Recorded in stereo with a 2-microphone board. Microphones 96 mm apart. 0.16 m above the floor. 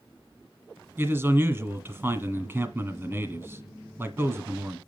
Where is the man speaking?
20° right (ahead or behind), 1.4 m.